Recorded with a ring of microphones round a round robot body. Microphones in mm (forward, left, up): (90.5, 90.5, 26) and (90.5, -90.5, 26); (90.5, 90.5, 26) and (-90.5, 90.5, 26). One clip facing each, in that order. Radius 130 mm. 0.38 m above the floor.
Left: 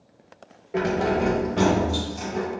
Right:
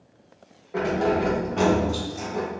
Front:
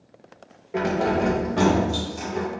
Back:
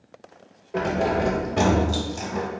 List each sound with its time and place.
0.7 s keys jangling: 60° left, 0.7 m; by 2.5 s 175° right, 1.0 m